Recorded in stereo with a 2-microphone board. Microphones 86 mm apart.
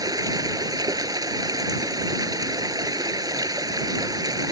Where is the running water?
45° right (ahead or behind).